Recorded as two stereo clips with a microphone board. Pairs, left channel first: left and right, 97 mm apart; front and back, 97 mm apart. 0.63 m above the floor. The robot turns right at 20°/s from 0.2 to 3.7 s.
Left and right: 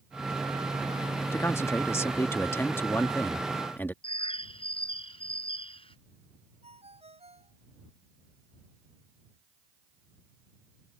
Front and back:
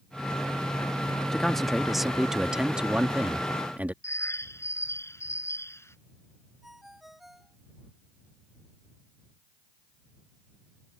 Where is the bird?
65° left.